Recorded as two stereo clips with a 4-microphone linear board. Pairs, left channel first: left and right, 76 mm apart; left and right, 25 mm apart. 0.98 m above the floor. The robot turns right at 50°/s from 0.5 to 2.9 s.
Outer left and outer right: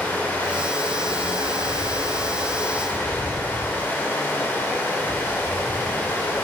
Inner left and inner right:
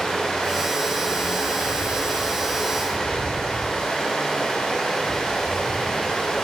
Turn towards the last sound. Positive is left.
turn(degrees=145)